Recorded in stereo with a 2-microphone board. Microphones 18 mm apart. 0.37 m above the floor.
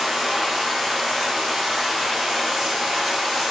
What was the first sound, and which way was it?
Running water, 40° right (ahead or behind).